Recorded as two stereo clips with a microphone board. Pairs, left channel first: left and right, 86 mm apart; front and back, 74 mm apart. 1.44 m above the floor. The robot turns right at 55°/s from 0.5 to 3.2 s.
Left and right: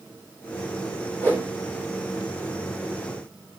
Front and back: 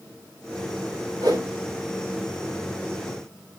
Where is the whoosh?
155° left, 3 m; by 1.4 s 165° left, 3 m.